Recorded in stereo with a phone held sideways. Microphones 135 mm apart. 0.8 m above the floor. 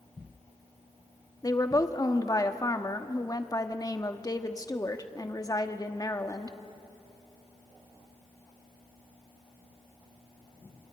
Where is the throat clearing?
No throat clearing in this recording.